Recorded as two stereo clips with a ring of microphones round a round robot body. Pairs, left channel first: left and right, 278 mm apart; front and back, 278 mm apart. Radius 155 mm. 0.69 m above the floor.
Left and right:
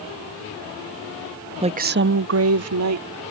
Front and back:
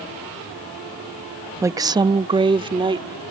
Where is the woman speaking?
115° right; by 3.1 s 110° right.